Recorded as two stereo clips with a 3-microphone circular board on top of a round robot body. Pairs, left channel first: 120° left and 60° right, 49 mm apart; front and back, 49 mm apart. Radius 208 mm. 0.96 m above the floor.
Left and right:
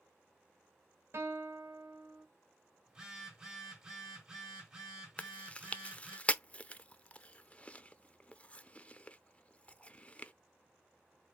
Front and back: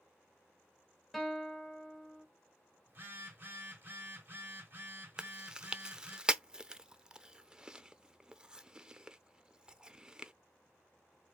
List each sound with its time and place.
1.1 s a guitar: 90° right, 2 m
2.9 s a phone buzzing: 135° right, 3.5 m
5.2 s chewing: 130° left, 0.9 m